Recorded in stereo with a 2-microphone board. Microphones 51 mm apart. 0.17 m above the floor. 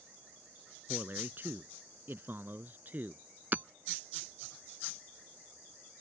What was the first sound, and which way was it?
A man speaking, 45° right (ahead or behind).